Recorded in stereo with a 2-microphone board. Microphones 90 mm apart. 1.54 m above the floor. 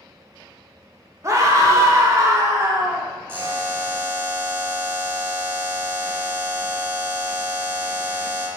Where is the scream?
35° right (ahead or behind), 0.7 m.